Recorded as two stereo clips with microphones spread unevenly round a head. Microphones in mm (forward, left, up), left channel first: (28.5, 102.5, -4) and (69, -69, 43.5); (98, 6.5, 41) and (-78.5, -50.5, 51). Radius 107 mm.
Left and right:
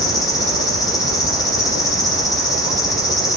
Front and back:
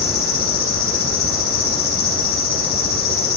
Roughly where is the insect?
Ahead left.